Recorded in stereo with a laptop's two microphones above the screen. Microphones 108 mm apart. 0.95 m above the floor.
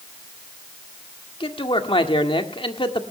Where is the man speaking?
55° left (ahead or behind), 1.8 m.